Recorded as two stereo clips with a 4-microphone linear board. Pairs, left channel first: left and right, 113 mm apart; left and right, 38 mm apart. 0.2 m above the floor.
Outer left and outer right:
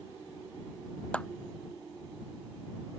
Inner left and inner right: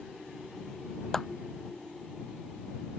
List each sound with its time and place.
1.1 s a clap: 10° left (ahead or behind)